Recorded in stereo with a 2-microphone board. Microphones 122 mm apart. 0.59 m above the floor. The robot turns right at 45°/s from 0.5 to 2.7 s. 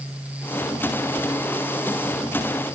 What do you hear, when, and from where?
Only background noise.